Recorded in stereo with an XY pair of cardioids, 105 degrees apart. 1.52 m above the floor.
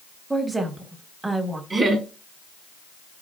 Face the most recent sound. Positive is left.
turn(degrees=-40)